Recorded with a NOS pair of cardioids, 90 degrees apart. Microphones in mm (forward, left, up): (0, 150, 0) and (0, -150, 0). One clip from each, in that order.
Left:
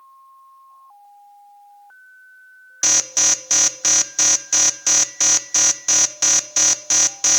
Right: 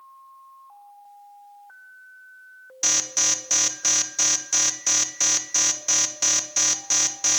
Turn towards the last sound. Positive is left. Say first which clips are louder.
# left 5 dB
turn(degrees=20)